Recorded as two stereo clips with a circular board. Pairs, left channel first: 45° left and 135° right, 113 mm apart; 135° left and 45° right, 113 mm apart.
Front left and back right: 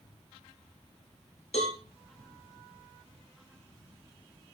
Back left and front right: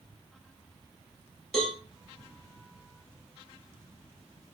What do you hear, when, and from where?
1.5 s a cowbell: 45° left, 2.5 m